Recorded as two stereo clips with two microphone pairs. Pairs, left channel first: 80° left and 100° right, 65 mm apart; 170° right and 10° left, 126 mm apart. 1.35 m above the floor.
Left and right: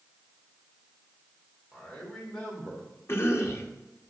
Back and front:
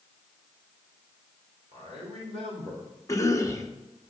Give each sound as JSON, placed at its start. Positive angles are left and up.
{"t": 1.7, "sound": "a man speaking", "azimuth_deg": 5, "distance_m": 3.5}
{"t": 3.1, "sound": "a cough", "azimuth_deg": 125, "distance_m": 1.2}